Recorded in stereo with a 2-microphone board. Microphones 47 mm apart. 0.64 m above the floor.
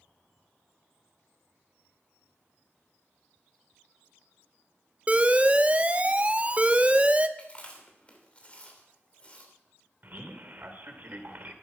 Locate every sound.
5.1 s an alarm: 25° right (ahead or behind), 0.6 m
7.4 s chewing: 25° left (ahead or behind), 3 m
10.0 s a man speaking: 40° right (ahead or behind), 2 m